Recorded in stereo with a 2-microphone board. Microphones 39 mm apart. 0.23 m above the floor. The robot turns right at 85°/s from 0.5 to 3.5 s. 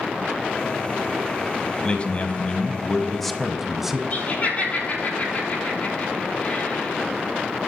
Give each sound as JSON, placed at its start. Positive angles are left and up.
{"t": 1.8, "sound": "a man speaking", "azimuth_deg": 55, "distance_m": 1.2}
{"t": 4.1, "sound": "laughter", "side_deg": 40, "distance_m": 5.0}